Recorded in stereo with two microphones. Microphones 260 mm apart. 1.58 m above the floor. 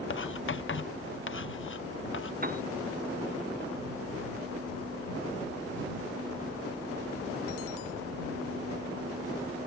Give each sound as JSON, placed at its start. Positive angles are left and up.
{"t": 0.1, "sound": "writing", "side_deg": 50}
{"t": 2.4, "sound": "a piano", "side_deg": -35}